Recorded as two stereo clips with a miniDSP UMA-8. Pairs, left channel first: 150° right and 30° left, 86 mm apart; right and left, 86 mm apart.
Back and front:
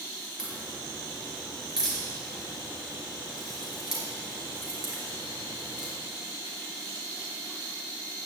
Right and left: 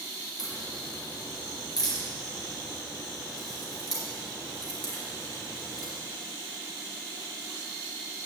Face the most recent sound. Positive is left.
turn(degrees=-55)